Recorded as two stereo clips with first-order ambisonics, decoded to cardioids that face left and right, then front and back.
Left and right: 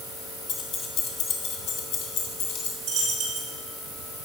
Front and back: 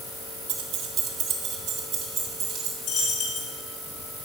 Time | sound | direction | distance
0.5 | keys jangling | 140° left | 1.5 m
2.8 | a dropped coin | 30° right | 4.5 m